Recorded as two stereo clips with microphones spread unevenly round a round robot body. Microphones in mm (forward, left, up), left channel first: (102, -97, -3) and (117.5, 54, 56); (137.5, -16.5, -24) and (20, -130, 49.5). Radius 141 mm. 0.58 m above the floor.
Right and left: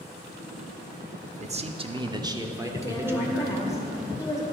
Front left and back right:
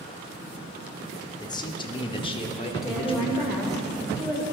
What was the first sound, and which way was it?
A man speaking, 30° left.